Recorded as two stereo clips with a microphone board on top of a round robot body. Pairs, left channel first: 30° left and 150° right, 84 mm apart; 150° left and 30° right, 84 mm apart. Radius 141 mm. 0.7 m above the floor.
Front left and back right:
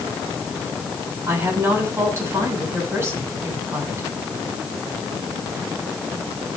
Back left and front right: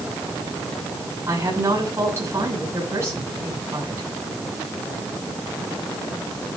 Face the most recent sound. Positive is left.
turn(degrees=-90)